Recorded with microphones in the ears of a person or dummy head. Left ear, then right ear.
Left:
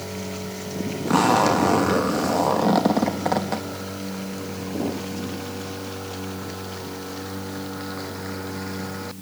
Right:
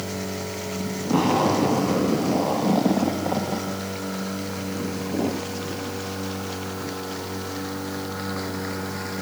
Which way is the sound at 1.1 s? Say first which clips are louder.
Left 3 dB; 60° left (ahead or behind).